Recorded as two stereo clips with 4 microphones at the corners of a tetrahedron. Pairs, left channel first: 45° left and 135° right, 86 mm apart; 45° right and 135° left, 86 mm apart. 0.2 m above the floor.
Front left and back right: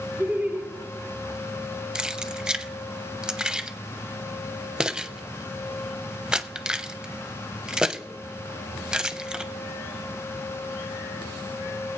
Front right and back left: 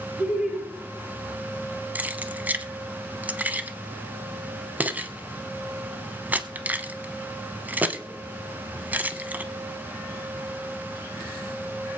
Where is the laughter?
170° right, 1.0 m.